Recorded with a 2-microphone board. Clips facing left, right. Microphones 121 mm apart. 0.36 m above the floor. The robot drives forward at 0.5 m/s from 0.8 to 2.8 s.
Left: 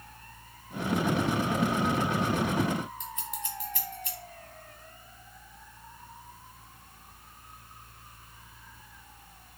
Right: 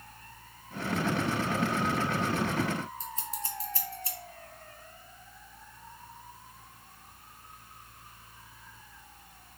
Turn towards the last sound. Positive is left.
turn(degrees=-35)  # may be behind; listen again after turning